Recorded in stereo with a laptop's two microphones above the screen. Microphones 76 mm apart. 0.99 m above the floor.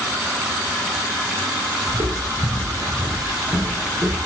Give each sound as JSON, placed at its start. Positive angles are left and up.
{"t": 1.9, "sound": "footsteps", "side_deg": -40, "distance_m": 1.6}